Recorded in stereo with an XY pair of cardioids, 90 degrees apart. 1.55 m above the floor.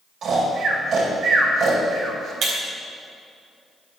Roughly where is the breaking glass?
Ahead right.